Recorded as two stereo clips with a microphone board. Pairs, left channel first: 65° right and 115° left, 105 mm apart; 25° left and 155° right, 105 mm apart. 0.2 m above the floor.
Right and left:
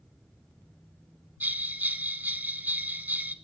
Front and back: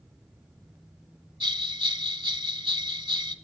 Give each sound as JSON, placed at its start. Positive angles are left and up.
{"t": 1.4, "sound": "a bell", "azimuth_deg": 180, "distance_m": 0.6}